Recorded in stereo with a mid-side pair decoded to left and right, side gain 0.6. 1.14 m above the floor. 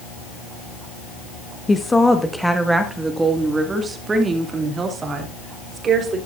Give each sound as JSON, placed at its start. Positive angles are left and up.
{"t": 1.7, "sound": "a woman speaking", "azimuth_deg": 20, "distance_m": 1.2}